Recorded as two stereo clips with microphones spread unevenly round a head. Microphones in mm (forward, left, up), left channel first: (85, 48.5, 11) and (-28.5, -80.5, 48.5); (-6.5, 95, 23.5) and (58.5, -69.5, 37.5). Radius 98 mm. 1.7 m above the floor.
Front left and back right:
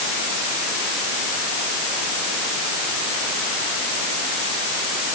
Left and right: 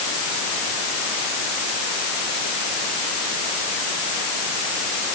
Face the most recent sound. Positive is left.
No sound to turn to.